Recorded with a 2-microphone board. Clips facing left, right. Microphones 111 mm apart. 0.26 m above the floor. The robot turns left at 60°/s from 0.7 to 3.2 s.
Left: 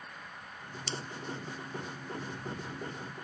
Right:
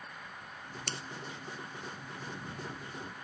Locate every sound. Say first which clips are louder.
0.9 s scissors: left 4 dB; 55° right (ahead or behind); by 1.0 s 65° right (ahead or behind)